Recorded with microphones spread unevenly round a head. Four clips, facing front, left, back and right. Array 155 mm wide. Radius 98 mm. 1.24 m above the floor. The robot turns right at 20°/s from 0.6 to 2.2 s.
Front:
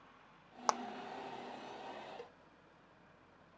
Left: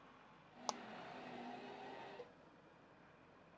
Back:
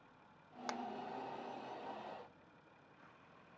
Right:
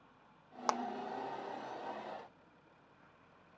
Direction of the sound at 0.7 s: 50° right.